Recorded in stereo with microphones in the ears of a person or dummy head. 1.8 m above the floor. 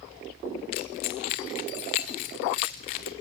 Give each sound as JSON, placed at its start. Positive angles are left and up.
{"t": 0.7, "sound": "keys jangling", "side_deg": 35, "distance_m": 0.7}